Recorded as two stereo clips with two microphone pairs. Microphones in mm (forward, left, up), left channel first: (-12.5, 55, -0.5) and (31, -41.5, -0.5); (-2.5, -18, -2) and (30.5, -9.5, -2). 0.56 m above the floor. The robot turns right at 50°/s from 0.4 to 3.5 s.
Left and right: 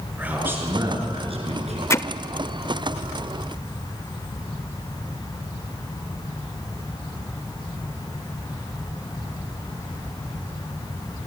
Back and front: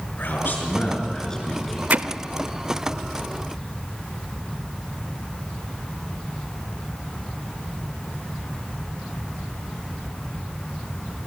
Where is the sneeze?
No sneeze in this recording.